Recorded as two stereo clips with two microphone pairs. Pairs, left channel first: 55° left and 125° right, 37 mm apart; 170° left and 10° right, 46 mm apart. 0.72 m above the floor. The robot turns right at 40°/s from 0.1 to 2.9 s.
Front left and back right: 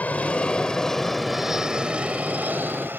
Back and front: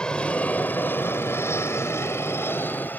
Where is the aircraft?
100° left; by 3.0 s 145° right.